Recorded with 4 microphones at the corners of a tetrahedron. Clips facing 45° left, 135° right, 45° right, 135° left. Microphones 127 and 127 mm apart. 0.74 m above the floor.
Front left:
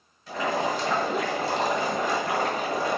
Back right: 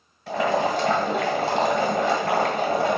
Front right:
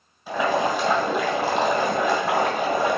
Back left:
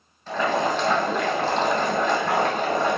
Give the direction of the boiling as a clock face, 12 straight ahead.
4 o'clock.